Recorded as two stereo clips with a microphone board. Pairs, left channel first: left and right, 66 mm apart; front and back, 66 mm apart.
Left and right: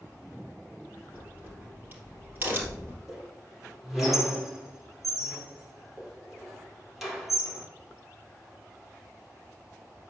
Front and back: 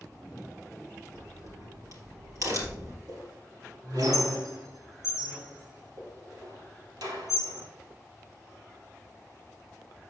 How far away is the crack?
About 3.5 m.